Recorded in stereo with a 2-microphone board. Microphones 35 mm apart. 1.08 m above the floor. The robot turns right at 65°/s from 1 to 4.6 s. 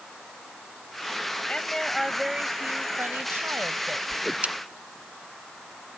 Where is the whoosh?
20° right (ahead or behind); by 4.5 s 40° right (ahead or behind).